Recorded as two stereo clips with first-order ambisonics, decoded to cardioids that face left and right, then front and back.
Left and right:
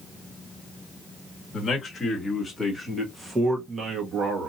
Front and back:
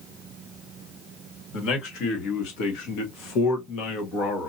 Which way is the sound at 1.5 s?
25° left.